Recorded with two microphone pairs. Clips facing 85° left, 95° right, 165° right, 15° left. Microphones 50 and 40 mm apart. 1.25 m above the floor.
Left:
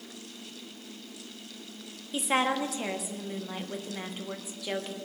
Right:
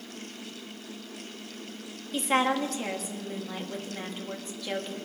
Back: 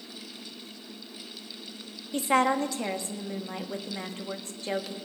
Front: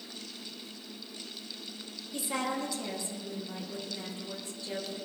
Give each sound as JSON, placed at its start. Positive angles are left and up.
{"t": 2.1, "sound": "a woman speaking", "azimuth_deg": 170, "distance_m": 1.2}